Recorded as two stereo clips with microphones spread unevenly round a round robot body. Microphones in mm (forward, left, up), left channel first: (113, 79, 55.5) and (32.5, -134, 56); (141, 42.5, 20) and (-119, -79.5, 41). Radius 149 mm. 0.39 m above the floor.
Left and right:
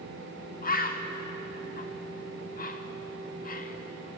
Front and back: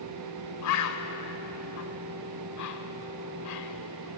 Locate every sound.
0.6 s a bird: 20° left, 0.9 m